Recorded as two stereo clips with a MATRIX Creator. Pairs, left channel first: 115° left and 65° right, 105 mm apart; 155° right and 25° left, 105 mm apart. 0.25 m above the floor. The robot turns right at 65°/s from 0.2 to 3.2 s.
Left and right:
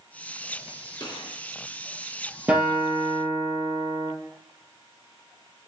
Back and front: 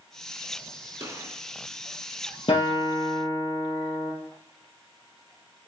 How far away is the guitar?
About 3 m.